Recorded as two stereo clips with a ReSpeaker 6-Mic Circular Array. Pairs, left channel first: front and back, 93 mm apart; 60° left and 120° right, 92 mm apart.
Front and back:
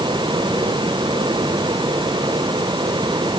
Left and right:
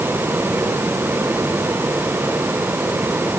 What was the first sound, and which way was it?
Only background noise.